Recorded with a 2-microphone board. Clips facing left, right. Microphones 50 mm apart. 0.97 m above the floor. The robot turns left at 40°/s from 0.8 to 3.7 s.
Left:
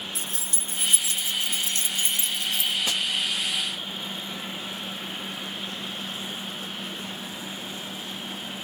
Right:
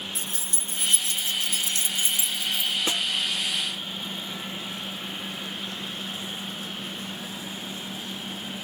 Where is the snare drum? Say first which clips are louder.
Even; 25° right (ahead or behind); by 3.1 s 30° right (ahead or behind).